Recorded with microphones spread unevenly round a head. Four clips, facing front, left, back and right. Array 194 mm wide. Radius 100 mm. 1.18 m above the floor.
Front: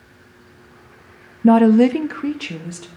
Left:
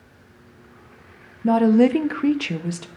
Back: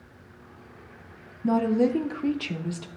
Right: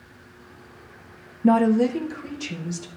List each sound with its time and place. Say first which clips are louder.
1.4 s a woman speaking: left 2 dB, front 11 dB; 15° right, 0.5 m; by 2.9 s 65° left, 1.2 m